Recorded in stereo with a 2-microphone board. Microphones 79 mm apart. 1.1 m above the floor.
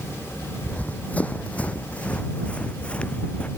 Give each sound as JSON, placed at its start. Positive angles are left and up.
{"t": 0.6, "sound": "running footsteps", "side_deg": 20}